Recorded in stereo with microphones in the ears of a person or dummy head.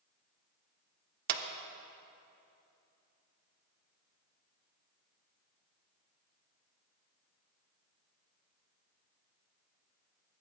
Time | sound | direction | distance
1.3 | a clap | 50° right (ahead or behind) | 0.8 m